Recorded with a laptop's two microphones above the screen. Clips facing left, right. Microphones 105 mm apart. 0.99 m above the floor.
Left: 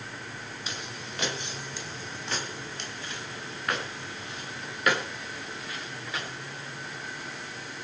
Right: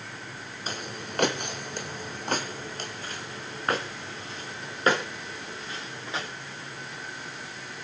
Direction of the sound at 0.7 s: 45° right (ahead or behind).